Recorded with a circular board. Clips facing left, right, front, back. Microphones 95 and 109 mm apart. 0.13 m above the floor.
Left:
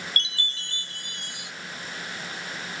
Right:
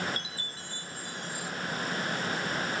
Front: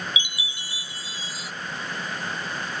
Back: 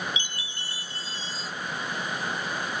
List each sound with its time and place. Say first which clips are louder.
0.2 s a chime: left 5 dB, front 2 dB; 80° left